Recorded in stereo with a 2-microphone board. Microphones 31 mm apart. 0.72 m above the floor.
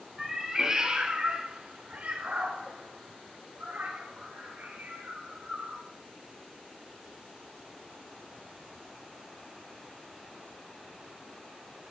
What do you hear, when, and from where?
0.2 s a cat meowing: 10° right (ahead or behind), 2 m; by 5.8 s 75° right (ahead or behind), 5.5 m